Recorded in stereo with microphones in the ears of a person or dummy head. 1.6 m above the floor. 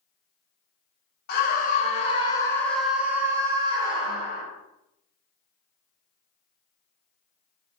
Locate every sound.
1.3 s a scream: 55° left (ahead or behind), 0.9 m; by 4.4 s 40° right (ahead or behind), 1.2 m